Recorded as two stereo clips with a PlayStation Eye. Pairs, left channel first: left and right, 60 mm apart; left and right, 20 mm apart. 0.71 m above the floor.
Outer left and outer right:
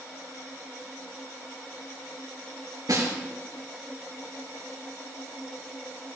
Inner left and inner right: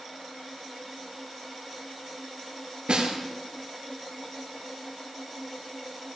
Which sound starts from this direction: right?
A snare drum, at 2.9 s.